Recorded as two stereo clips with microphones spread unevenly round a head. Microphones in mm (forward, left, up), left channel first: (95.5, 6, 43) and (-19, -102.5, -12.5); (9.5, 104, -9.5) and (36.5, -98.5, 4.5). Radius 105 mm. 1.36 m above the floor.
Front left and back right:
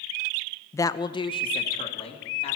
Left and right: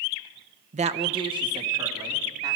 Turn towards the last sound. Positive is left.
turn(degrees=-10)